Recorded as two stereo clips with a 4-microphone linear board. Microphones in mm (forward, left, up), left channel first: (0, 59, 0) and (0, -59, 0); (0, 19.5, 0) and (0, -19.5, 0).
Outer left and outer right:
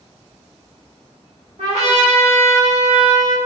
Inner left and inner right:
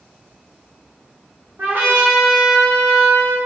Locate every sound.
1.6 s a trumpet: 70° right (ahead or behind), 1.7 m